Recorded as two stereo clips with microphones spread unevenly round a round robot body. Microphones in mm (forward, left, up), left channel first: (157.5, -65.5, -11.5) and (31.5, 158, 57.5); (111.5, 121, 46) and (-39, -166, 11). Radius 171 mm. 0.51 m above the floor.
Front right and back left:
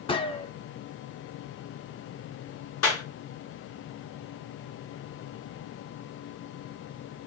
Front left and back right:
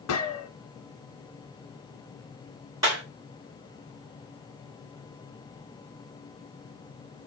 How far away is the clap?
About 3.5 m.